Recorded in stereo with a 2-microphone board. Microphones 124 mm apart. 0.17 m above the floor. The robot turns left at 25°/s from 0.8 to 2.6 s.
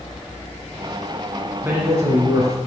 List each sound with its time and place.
1.6 s a man speaking: 15° right (ahead or behind), 1.7 m; by 2.6 s 30° right (ahead or behind), 1.7 m